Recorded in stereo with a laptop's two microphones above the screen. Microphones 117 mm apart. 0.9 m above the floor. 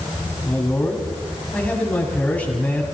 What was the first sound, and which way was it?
A man speaking, 10° left (ahead or behind).